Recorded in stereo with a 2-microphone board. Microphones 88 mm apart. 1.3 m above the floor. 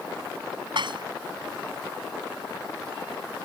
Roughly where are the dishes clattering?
Right.